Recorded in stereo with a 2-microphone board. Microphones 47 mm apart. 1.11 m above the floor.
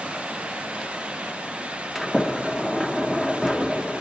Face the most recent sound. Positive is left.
turn(degrees=-5)  # may be behind; listen again after turning